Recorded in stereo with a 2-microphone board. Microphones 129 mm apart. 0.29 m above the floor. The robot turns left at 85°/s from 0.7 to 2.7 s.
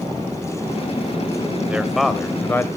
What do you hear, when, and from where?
1.7 s a man speaking: 10° right (ahead or behind), 1.2 m; by 2.7 s 20° left (ahead or behind), 1.2 m